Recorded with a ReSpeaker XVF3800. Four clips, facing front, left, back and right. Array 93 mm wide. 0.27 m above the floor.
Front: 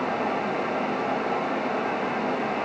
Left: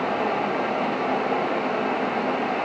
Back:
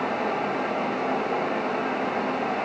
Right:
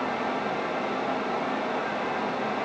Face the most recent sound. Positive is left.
No sound to turn to.